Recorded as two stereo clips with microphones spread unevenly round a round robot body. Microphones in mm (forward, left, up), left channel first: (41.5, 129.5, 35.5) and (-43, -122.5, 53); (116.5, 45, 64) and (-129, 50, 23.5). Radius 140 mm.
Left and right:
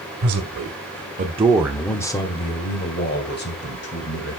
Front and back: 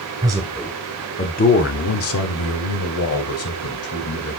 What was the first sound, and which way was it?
A man speaking, 110° right.